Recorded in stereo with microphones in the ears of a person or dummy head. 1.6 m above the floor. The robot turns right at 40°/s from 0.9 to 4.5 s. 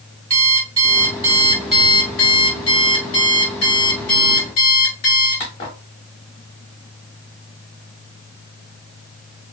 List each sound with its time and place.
0.3 s an alarm clock: 10° right (ahead or behind), 1.0 m; by 5.8 s 20° left (ahead or behind), 1.0 m